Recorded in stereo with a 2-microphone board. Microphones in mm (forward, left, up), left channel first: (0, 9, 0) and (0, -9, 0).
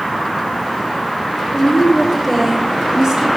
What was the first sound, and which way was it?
A woman speaking, 60° left (ahead or behind).